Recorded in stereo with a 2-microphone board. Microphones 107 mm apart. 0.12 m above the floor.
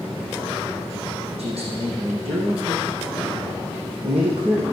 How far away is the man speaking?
About 5.5 m.